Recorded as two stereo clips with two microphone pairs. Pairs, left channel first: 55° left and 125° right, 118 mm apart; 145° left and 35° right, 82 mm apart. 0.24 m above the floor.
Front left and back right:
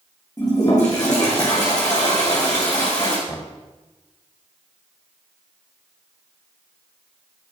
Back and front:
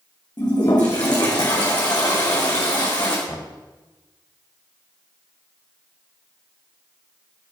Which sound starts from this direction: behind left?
A toilet flushing, at 0.4 s.